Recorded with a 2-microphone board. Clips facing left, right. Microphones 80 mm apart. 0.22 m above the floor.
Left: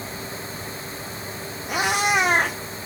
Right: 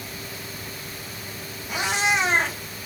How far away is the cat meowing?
About 2.0 m.